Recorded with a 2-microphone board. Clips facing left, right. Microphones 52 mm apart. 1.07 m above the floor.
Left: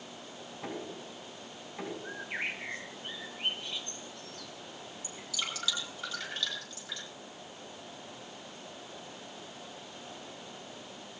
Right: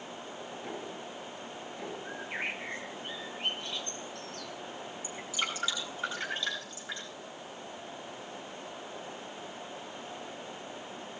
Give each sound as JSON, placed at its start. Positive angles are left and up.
{"t": 0.6, "sound": "knocking", "side_deg": 50, "distance_m": 9.5}
{"t": 2.0, "sound": "a bird", "side_deg": 10, "distance_m": 3.5}
{"t": 5.0, "sound": "dripping", "side_deg": -25, "distance_m": 9.0}